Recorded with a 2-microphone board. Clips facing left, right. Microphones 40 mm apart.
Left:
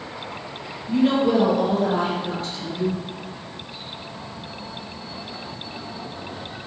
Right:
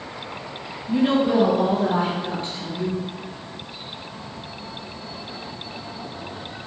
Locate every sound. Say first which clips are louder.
0.9 s a woman speaking: even; 15° right (ahead or behind), 3.5 m; by 3.0 s 25° right (ahead or behind), 5 m